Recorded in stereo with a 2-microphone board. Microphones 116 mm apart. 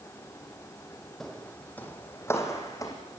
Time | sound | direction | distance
1.2 | footsteps | 5° left (ahead or behind) | 2.5 m